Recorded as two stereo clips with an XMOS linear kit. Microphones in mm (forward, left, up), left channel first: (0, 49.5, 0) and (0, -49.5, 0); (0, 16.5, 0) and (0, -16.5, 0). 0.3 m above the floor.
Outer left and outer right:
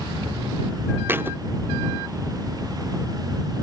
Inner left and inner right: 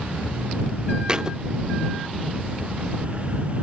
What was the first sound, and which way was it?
A thud, 20° right (ahead or behind).